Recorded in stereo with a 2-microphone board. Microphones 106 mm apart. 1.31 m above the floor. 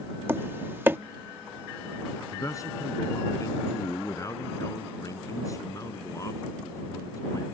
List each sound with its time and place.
0.3 s tapping: 20° right (ahead or behind)
2.3 s a man speaking: 30° left (ahead or behind)